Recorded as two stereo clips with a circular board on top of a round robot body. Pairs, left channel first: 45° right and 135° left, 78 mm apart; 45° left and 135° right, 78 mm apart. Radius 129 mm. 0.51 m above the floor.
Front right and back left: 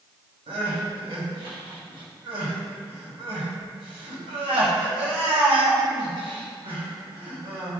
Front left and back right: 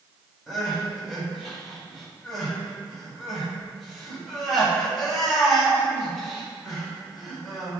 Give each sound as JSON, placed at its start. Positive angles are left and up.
{"t": 0.5, "sound": "crying", "azimuth_deg": 135, "distance_m": 2.5}